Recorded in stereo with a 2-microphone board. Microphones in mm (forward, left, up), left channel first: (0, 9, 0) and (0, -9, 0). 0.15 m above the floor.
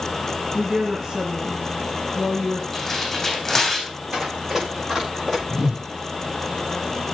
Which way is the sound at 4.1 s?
30° right (ahead or behind).